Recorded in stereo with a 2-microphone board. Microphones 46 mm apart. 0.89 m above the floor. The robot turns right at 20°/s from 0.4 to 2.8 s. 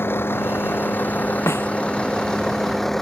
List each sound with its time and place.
0.0 s a vehicle: 125° left; by 3.0 s 170° left
1.5 s a snare drum: 75° left (ahead or behind)